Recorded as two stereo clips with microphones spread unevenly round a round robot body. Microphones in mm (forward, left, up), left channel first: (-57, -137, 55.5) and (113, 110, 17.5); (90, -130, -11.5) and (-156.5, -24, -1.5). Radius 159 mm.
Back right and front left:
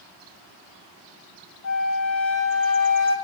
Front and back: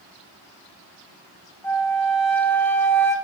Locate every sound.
1.6 s a flute: 100° right, 2 m